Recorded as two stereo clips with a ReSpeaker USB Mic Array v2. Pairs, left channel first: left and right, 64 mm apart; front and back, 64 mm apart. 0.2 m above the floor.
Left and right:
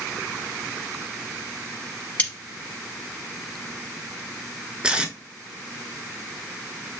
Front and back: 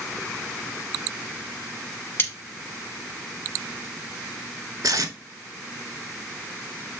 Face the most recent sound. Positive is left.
turn(degrees=-165)